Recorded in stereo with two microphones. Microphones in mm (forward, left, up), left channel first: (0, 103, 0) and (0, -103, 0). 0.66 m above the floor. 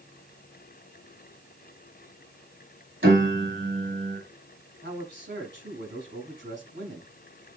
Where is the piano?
70° right (ahead or behind), 4.5 m.